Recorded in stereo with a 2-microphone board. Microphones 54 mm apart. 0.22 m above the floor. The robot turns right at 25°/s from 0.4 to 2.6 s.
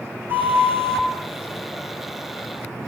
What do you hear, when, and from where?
0.3 s a flute: 35° right (ahead or behind), 2.5 m; by 1.1 s 55° right (ahead or behind), 2.5 m